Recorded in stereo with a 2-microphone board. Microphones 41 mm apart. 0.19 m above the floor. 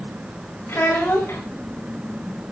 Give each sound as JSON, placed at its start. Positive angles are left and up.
{"t": 0.7, "sound": "a child speaking", "side_deg": 70, "distance_m": 9.5}